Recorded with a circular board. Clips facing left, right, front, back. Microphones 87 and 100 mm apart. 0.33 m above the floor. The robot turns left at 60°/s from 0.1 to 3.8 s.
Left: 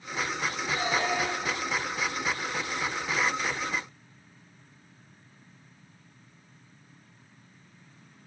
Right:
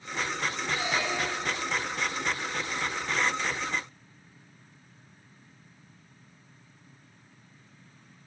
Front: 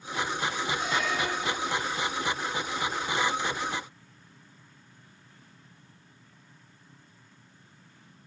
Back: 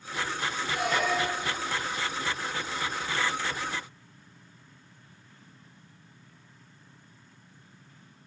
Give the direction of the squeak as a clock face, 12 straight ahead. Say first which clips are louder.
Left 4 dB, back 5 dB; 7 o'clock.